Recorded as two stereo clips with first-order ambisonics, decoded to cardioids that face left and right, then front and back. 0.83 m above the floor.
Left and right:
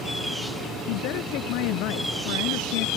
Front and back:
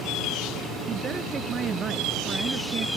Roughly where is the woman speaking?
Behind left.